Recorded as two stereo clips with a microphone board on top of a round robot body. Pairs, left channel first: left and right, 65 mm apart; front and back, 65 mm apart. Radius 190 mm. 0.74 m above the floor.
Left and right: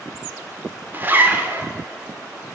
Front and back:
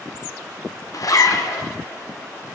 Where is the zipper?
30° right, 2.5 m.